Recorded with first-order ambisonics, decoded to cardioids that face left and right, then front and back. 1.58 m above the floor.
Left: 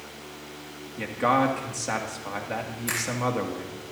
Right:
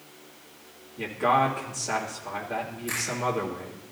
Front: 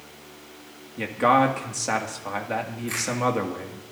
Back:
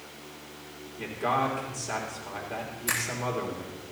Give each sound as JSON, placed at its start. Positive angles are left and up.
{"t": 1.0, "sound": "a man speaking", "azimuth_deg": 25, "distance_m": 2.5}
{"t": 2.9, "sound": "a finger snap", "azimuth_deg": 140, "distance_m": 7.0}